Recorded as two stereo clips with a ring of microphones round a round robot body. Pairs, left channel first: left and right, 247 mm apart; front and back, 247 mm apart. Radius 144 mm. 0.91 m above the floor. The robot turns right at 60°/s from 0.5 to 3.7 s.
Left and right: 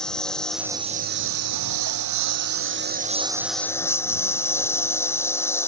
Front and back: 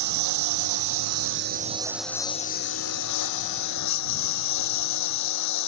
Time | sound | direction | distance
0.0 | a lawn mower | straight behind | ?